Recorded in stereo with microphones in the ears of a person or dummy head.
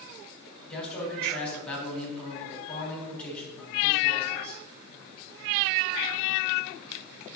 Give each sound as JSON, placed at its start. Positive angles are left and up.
{"t": 0.7, "sound": "a man speaking", "side_deg": 10, "distance_m": 4.0}